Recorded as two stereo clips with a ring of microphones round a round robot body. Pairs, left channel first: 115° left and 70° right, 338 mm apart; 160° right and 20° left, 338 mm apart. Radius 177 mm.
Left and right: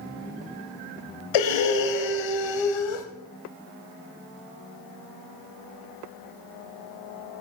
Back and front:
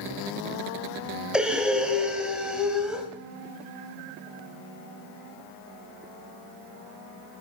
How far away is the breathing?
About 1.8 m.